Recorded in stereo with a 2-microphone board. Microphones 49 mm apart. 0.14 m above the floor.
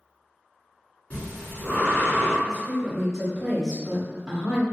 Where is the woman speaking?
5° right (ahead or behind), 1.7 m.